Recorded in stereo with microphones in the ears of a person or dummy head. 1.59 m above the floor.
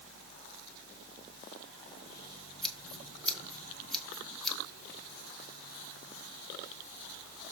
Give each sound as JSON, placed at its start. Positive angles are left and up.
{"t": 0.0, "sound": "a fan", "side_deg": -70, "distance_m": 2.5}
{"t": 2.6, "sound": "scissors", "side_deg": 5, "distance_m": 1.3}